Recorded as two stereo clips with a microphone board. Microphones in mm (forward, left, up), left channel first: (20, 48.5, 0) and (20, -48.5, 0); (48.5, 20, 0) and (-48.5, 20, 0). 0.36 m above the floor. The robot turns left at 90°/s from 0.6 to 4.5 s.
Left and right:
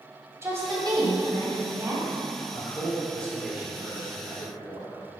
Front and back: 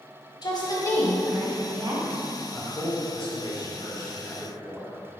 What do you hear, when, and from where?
0.4 s a woman speaking: 30° right, 2 m; by 2.0 s 165° right, 2 m
2.5 s a man speaking: 80° left, 2.0 m; by 5.2 s 95° right, 2.0 m